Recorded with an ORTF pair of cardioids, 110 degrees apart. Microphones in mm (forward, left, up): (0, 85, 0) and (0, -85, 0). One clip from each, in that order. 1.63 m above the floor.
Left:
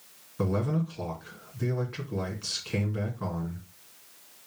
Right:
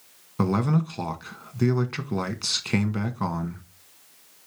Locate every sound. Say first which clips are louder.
0.4 s a man speaking: right 4 dB; 60° right, 1.9 m